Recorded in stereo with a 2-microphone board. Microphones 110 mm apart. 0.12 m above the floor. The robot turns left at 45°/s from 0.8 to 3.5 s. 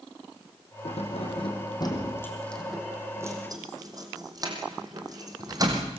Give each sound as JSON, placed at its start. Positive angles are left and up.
{"t": 0.8, "sound": "keys jangling", "side_deg": 75, "distance_m": 4.0}